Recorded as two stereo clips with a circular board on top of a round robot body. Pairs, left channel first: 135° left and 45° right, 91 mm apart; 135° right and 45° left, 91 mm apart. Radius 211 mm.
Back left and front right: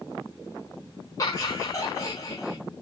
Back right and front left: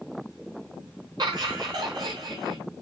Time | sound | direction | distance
1.2 | laughter | 85° left | 5 m